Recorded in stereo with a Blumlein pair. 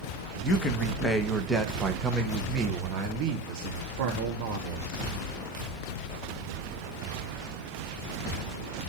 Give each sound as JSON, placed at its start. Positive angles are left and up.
{"t": 0.4, "sound": "a man speaking", "azimuth_deg": 20, "distance_m": 1.4}